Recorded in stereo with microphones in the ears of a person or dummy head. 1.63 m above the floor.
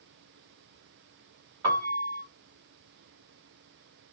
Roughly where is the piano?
Centre.